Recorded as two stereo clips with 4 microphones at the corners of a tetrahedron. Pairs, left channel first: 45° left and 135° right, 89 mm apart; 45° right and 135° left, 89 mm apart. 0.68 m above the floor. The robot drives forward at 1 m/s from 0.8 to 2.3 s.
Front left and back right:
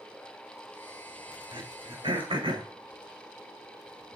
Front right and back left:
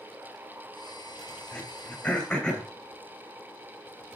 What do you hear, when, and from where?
1.5 s throat clearing: 115° right, 3.5 m; by 2.7 s 125° right, 4 m